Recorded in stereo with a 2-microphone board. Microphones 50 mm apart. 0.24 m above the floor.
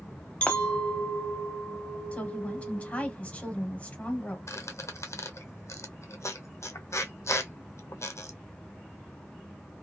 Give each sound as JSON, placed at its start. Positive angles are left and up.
{"t": 0.4, "sound": "a clink", "side_deg": 25, "distance_m": 0.7}
{"t": 2.1, "sound": "a woman speaking", "side_deg": 30, "distance_m": 1.2}
{"t": 4.5, "sound": "a squeak", "side_deg": 75, "distance_m": 0.6}